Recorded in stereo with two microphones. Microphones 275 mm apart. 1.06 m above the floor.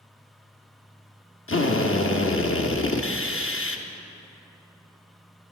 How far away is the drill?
About 0.8 m.